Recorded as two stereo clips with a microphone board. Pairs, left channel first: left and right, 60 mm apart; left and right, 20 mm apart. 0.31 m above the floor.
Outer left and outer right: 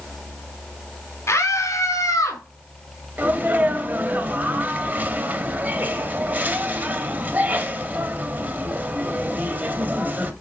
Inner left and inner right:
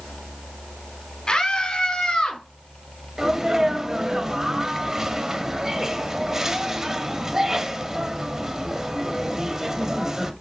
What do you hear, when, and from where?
1.3 s a scream: 45° left (ahead or behind), 2 m; by 2.4 s 65° left (ahead or behind), 3 m
3.2 s a sneeze: 30° right (ahead or behind), 1.2 m